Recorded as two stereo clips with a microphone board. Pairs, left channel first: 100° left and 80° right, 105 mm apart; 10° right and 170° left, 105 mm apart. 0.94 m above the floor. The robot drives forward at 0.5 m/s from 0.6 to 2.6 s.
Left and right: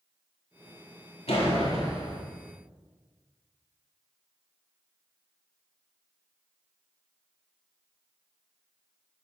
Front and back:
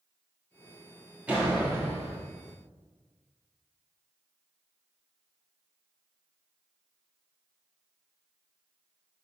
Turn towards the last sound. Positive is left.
turn(degrees=115)